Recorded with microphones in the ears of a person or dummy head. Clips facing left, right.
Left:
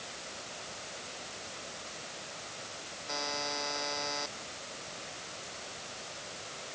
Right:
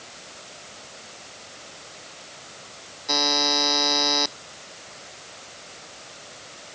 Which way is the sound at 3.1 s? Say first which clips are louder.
Right 12 dB; 85° right.